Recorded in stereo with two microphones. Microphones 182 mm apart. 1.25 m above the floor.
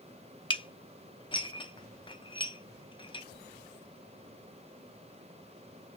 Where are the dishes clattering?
25° left (ahead or behind), 0.6 m.